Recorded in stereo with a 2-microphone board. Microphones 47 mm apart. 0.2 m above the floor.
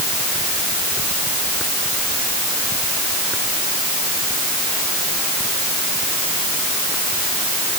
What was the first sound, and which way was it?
Only background noise.